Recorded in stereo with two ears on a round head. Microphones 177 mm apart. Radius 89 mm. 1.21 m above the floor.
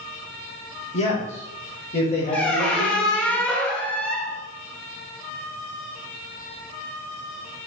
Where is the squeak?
5° left (ahead or behind), 0.9 m.